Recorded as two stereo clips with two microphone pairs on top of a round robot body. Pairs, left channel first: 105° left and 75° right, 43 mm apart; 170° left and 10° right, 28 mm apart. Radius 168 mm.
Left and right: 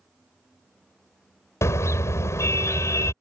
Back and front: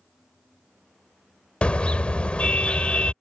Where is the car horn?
115° left.